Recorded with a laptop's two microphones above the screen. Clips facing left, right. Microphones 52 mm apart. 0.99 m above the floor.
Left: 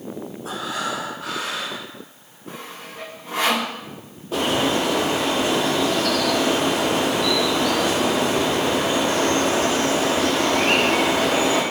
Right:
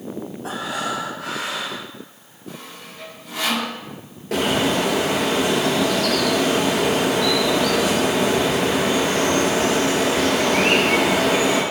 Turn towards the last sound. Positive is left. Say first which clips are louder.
# right 1 dB
turn(degrees=-70)  # may be behind; listen again after turning